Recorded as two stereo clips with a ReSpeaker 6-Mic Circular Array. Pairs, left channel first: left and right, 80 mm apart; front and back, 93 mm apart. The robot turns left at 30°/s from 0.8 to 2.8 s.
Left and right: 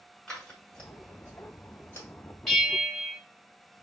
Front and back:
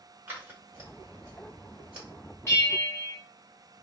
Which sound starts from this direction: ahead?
A bell, at 2.5 s.